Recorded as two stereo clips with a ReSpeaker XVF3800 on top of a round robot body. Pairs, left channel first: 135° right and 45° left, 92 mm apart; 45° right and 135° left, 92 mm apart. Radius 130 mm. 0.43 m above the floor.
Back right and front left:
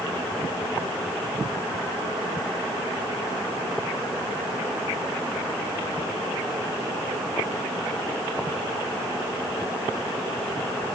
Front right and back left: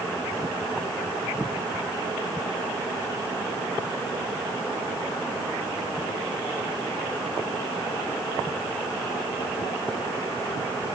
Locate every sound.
Only background noise.